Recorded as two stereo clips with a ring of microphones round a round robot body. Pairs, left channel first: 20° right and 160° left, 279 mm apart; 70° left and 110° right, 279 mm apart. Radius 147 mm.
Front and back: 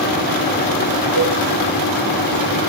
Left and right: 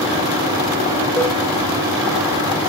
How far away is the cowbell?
About 1.8 m.